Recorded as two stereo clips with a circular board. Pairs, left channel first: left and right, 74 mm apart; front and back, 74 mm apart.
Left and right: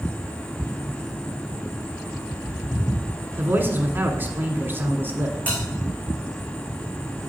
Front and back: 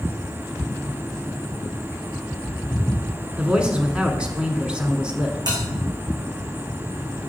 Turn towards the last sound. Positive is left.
turn(degrees=160)